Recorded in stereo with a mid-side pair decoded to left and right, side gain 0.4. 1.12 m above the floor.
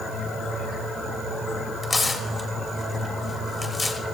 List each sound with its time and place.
1.8 s tearing paper: 35° left, 2 m